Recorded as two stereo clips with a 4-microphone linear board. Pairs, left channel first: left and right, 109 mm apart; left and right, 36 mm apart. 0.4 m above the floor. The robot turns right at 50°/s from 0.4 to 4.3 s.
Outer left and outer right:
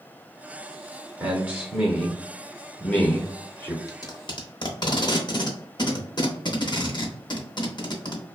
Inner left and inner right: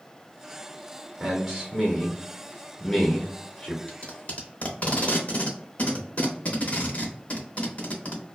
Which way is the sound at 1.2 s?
15° right (ahead or behind).